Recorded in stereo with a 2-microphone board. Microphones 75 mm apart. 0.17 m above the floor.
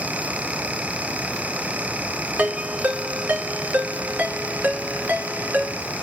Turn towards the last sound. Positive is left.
turn(degrees=-25)  # may be behind; listen again after turning